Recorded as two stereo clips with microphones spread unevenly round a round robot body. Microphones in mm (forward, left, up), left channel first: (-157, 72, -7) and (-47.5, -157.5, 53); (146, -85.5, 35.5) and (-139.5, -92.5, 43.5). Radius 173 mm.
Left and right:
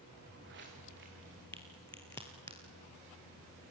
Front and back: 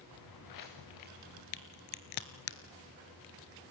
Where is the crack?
30° left, 0.9 m.